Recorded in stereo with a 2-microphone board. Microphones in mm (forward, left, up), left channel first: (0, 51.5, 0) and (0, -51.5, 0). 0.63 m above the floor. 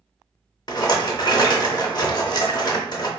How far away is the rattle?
About 0.6 m.